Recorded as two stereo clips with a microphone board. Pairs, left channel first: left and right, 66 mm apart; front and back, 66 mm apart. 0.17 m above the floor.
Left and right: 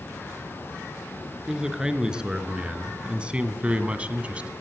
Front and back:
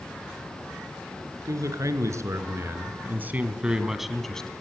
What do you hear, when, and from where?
1.5 s a man speaking: 165° right, 3 m; by 4.5 s 55° right, 1.8 m